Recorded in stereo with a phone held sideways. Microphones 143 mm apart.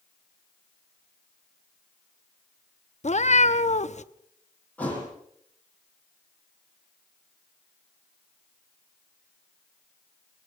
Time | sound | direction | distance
3.0 | a cat meowing | 55° left (ahead or behind) | 0.8 m
4.8 | a thud | 10° left (ahead or behind) | 8 m